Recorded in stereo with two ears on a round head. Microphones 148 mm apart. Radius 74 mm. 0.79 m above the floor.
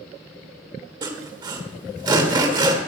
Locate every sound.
1.0 s sawing: 25° right (ahead or behind), 1.3 m